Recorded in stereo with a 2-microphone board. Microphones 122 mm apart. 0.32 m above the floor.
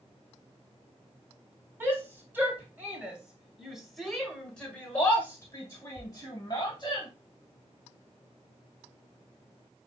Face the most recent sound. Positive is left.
turn(degrees=40)  # may be behind; listen again after turning